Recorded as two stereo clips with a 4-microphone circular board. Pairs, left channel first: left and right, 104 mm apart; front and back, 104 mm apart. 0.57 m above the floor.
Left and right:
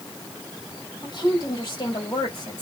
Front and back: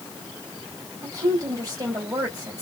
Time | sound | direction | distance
1.0 | a woman speaking | 135° left | 2 m